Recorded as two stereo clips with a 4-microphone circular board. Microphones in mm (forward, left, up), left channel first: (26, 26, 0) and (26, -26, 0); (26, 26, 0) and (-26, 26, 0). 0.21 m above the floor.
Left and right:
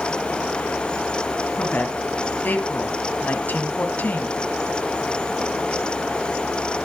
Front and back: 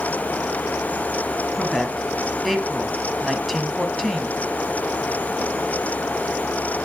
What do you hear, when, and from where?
1.6 s a woman speaking: 90° left, 1.7 m